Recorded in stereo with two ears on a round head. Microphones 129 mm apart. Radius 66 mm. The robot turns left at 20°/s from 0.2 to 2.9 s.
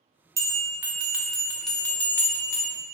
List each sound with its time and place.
0.4 s a bell: 155° right, 0.6 m; by 2.8 s 155° left, 0.6 m